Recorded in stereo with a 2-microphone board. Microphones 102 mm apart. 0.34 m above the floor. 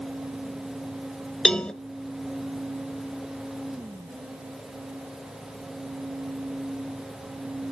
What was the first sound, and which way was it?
A cowbell, 10° left (ahead or behind).